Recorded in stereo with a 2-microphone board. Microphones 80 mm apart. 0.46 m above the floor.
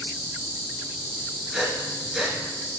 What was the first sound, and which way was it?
An insect, 65° right (ahead or behind).